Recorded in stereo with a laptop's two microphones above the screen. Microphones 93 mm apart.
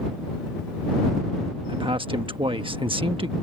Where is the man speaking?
70° right (ahead or behind).